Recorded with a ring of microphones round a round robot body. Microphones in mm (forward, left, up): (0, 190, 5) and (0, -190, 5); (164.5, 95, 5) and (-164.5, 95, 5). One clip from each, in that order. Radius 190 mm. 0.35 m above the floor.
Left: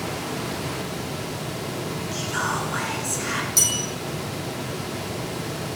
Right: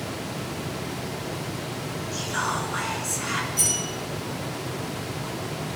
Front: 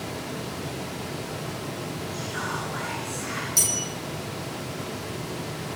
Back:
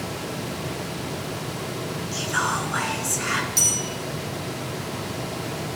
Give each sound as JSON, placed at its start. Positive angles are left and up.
{"t": 2.1, "sound": "whispering", "azimuth_deg": 175, "distance_m": 4.0}
{"t": 3.6, "sound": "a bell", "azimuth_deg": 60, "distance_m": 8.0}